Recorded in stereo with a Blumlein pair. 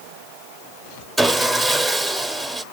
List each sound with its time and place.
1.2 s sawing: 5° right, 0.8 m